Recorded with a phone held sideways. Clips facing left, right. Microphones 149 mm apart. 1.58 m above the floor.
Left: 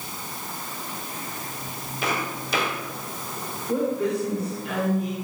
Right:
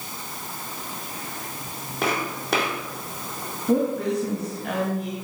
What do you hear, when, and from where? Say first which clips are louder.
2.0 s footsteps: right 2 dB; 65° right (ahead or behind), 4 m
3.7 s a woman speaking: right 2 dB; 80° right, 3 m